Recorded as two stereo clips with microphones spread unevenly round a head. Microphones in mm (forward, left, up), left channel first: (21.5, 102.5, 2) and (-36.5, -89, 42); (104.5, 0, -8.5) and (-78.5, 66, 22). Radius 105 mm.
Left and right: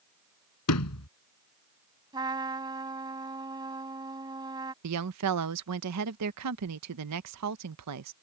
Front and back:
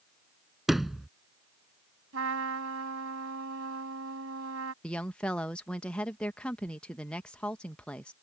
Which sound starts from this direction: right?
A woman speaking, at 4.8 s.